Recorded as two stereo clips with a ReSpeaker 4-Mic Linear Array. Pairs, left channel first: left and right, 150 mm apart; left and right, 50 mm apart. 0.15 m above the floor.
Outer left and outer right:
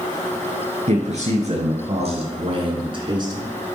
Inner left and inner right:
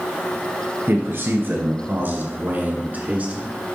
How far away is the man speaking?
About 3 m.